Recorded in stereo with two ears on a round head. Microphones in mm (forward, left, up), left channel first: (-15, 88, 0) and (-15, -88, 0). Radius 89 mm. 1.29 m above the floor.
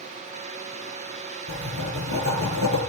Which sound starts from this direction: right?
Writing, at 1.5 s.